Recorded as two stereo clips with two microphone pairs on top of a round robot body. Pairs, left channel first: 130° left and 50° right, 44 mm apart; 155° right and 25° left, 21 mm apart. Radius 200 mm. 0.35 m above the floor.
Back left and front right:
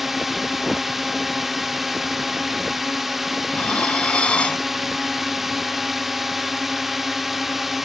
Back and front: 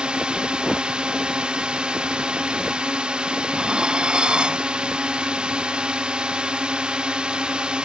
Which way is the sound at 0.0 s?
45° left.